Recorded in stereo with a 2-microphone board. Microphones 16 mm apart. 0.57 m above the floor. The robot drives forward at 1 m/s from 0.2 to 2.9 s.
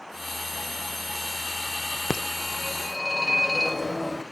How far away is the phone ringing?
About 0.7 m.